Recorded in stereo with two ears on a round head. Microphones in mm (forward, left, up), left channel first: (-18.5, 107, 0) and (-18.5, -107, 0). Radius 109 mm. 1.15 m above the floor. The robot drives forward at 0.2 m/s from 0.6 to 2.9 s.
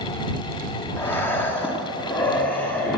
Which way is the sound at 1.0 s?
10° left (ahead or behind).